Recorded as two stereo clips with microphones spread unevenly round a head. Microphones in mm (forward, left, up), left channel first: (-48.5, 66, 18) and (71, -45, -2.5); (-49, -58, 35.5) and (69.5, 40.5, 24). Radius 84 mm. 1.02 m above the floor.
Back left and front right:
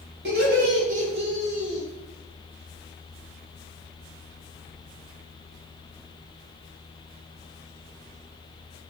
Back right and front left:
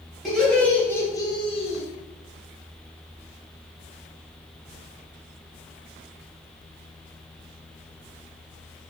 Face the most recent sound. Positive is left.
turn(degrees=-135)